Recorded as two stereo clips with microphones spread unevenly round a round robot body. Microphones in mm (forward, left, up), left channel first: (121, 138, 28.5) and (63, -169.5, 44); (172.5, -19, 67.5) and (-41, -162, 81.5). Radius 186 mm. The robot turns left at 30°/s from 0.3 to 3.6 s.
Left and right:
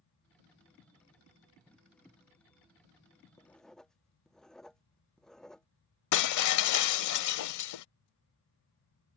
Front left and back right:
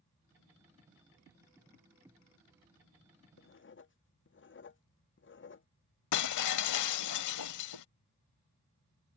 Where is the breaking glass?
55° left.